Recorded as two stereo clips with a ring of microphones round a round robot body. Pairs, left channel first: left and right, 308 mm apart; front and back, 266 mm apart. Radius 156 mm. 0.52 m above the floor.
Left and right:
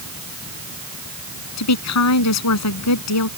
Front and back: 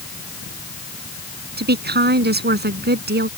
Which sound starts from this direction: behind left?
A woman speaking, at 1.6 s.